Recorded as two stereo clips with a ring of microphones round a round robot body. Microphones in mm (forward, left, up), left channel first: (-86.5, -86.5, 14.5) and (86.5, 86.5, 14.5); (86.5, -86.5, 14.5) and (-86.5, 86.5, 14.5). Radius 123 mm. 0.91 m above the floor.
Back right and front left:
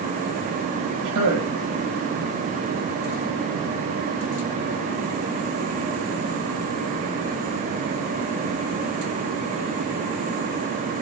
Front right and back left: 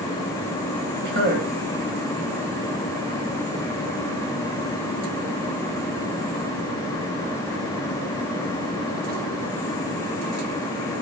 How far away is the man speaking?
About 5.5 m.